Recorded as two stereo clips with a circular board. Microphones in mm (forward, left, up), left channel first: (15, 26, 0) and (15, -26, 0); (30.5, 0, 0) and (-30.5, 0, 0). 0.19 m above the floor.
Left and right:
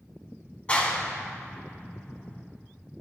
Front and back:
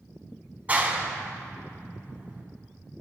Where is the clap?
135° left, 1.1 m.